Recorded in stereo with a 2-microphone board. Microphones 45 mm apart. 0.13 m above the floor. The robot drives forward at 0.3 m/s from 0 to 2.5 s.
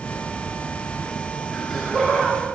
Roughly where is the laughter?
Centre.